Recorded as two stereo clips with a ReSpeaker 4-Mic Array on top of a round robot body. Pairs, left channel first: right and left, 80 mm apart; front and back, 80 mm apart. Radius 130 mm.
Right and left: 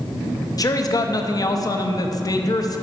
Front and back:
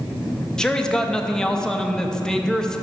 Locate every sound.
0.6 s a man speaking: 80° right, 0.7 m